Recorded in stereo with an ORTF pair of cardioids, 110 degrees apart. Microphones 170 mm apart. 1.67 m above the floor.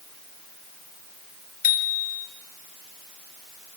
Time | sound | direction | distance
1.6 | a bicycle bell | 55° left | 5 m